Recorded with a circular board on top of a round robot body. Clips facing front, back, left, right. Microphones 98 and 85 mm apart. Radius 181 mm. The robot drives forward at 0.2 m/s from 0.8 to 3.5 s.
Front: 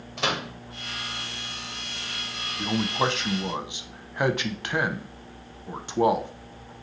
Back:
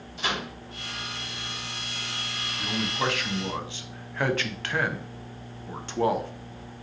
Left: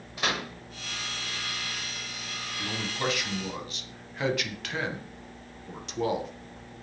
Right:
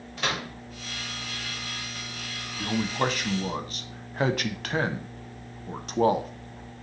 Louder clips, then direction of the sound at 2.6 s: Front 4 dB, right 6 dB; 45° right.